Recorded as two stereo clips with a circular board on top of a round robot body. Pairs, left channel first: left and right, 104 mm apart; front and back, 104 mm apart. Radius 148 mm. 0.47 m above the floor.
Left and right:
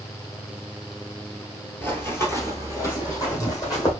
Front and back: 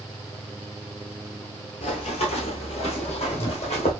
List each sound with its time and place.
1.8 s running footsteps: 20° left, 0.7 m; by 3.9 s 30° left, 1.8 m